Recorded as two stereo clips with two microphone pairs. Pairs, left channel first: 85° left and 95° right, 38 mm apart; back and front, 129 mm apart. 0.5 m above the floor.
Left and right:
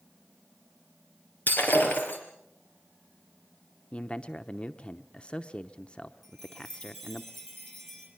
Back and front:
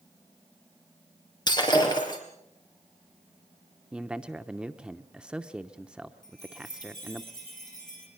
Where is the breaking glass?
120° left, 4 m.